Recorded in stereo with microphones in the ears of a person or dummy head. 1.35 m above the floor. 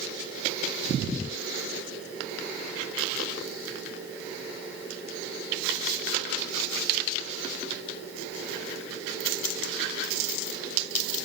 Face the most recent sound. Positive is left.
No sound to turn to.